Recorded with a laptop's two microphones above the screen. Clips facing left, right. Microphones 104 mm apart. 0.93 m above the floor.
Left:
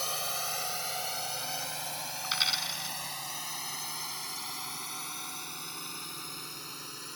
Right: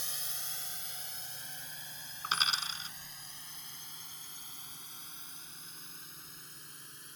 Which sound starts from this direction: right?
A dropped coin, at 2.2 s.